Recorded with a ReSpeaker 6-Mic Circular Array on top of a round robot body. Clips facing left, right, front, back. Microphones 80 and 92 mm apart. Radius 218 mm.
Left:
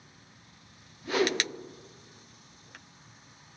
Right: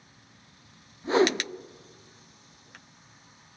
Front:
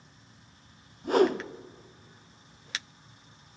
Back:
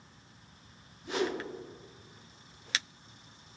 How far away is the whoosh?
About 0.5 m.